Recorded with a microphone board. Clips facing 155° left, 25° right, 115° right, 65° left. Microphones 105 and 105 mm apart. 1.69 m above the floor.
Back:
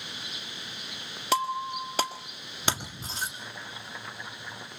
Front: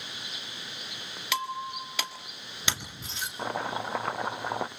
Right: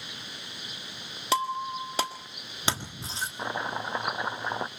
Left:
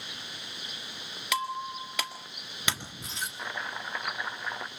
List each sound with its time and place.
1.3 s breaking glass: 165° right, 1.7 m
3.4 s chopping: 55° right, 0.6 m